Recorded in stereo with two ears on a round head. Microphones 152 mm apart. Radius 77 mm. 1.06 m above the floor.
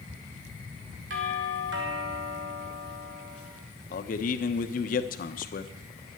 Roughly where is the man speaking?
Left.